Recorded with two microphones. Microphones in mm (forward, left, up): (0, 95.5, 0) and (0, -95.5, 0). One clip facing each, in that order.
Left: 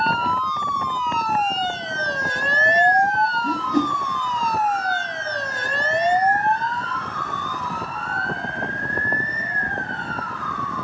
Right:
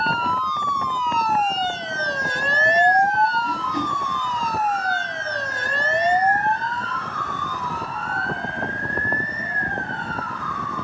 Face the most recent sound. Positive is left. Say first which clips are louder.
# left 6 dB
turn(degrees=45)  # may be behind; listen again after turning